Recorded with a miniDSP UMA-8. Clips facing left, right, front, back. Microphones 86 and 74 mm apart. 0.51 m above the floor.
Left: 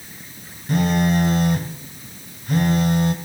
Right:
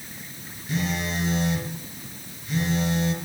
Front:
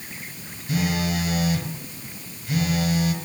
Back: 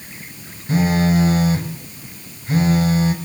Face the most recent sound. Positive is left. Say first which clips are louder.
# left 9 dB, back 8 dB
turn(degrees=125)